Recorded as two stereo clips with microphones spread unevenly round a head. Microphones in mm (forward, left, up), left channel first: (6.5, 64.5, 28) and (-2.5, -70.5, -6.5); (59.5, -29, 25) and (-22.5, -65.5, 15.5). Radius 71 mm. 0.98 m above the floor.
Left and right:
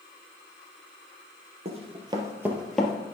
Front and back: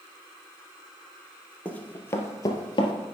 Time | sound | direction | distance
1.6 | running footsteps | 45° right | 1.8 m